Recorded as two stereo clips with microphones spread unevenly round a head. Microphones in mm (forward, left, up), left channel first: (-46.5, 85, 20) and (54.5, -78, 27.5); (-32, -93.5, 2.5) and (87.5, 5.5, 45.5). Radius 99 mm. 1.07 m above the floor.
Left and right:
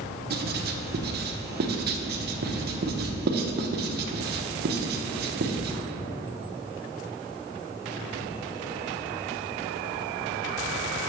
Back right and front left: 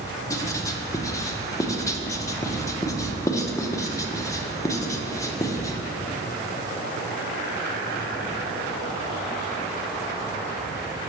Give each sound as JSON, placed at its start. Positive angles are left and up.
{"t": 0.3, "sound": "writing", "azimuth_deg": -85, "distance_m": 0.8}